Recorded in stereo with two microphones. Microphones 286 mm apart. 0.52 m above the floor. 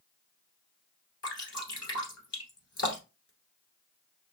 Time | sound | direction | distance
1.2 | dripping | 60° left (ahead or behind) | 1.5 m